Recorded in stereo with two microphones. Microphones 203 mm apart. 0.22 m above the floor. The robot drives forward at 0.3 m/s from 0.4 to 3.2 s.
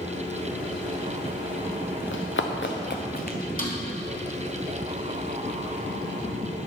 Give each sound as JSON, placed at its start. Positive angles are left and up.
{"t": 2.1, "sound": "running footsteps", "side_deg": 75, "distance_m": 1.3}
{"t": 3.6, "sound": "a snare drum", "side_deg": 45, "distance_m": 1.6}